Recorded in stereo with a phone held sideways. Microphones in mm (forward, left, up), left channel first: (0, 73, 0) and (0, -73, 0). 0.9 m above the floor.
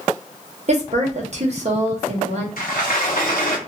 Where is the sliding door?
70° left (ahead or behind), 0.7 m.